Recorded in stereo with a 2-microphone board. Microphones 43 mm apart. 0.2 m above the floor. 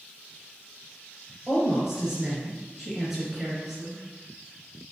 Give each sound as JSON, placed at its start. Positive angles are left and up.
{"t": 1.5, "sound": "a woman speaking", "side_deg": -5, "distance_m": 3.0}